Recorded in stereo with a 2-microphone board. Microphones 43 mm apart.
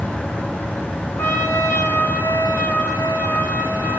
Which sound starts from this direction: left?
A trumpet, at 1.2 s.